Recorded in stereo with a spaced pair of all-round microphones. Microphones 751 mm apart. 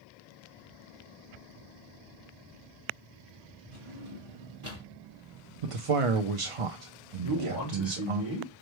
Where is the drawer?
40° right (ahead or behind), 1.9 m.